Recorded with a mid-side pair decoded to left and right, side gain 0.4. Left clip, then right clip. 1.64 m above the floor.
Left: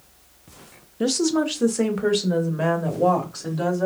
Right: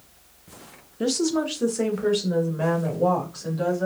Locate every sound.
1.0 s a woman speaking: 20° left, 0.6 m; by 3.9 s 40° left, 2 m